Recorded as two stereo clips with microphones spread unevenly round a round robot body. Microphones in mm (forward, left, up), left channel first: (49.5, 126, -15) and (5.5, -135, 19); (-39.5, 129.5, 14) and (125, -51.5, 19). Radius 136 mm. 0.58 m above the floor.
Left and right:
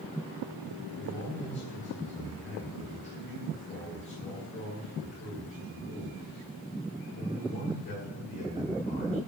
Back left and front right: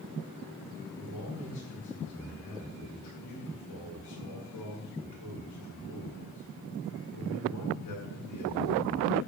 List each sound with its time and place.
1.0 s a man speaking: 145° left, 8 m